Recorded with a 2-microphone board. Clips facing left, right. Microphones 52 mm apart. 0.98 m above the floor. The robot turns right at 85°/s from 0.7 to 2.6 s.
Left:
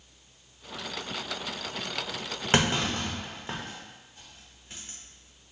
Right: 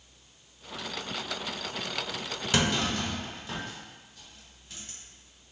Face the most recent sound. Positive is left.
turn(degrees=30)  # may be behind; listen again after turning